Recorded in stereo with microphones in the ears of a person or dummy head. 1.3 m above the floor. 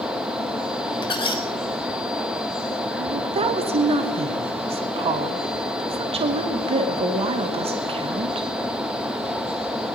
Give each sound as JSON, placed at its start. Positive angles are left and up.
{"t": 1.0, "sound": "a squeak", "side_deg": 25, "distance_m": 0.8}
{"t": 3.0, "sound": "a woman speaking", "side_deg": -35, "distance_m": 0.9}